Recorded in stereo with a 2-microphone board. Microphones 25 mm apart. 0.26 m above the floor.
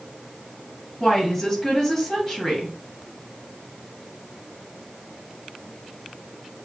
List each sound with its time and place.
1.0 s a woman speaking: 15° left (ahead or behind), 1.8 m